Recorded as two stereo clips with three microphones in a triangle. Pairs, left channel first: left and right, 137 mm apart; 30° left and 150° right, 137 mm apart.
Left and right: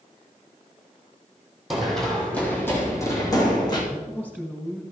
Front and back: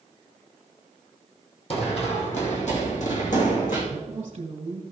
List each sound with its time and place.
1.7 s running footsteps: 5° right, 3 m; by 3.8 s 35° left, 4 m
3.9 s a man speaking: 165° left, 2.5 m